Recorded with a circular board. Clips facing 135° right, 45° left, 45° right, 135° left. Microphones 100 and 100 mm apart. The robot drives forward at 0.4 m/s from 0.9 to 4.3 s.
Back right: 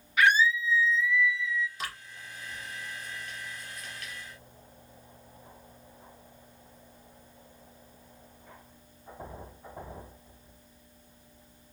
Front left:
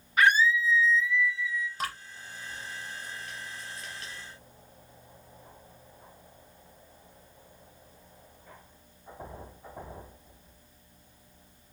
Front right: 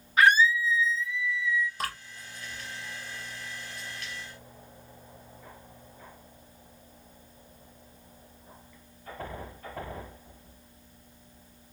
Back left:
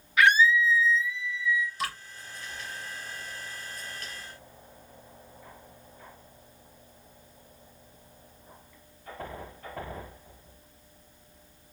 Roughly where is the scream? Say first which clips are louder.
Front left 1 dB, even; ahead.